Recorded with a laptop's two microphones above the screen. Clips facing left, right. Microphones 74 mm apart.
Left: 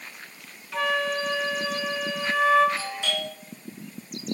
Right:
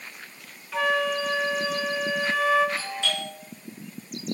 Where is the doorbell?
10° left (ahead or behind), 4 m.